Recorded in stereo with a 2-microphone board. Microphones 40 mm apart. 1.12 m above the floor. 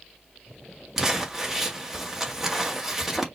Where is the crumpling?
10° right (ahead or behind), 1.6 m.